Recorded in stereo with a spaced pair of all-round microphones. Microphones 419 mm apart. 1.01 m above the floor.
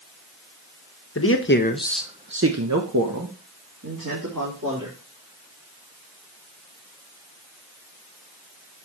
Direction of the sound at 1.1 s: 35° left (ahead or behind).